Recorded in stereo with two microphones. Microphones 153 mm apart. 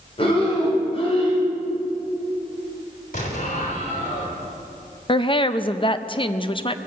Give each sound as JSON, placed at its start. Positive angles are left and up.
{"t": 0.2, "sound": "breathing", "side_deg": 40, "distance_m": 4.0}
{"t": 3.1, "sound": "an explosion", "side_deg": 60, "distance_m": 3.0}
{"t": 5.1, "sound": "a woman speaking", "side_deg": 35, "distance_m": 0.6}